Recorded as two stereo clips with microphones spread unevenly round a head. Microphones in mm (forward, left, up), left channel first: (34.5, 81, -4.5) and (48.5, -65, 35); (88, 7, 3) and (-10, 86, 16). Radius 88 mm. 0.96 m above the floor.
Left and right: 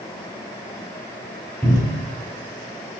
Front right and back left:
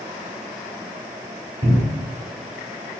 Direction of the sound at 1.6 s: 170° right.